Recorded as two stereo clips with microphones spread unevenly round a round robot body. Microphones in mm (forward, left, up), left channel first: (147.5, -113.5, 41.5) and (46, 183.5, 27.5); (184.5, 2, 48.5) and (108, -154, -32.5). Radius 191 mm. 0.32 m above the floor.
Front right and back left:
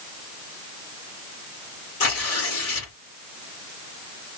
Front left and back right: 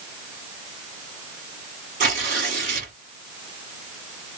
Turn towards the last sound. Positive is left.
turn(degrees=-120)